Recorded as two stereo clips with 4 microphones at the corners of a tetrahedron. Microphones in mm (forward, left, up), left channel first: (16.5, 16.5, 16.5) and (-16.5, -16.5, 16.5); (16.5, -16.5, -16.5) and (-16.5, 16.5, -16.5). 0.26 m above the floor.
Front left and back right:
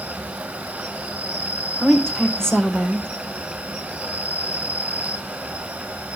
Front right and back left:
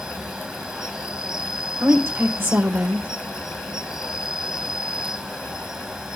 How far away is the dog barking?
I don't hear a dog barking.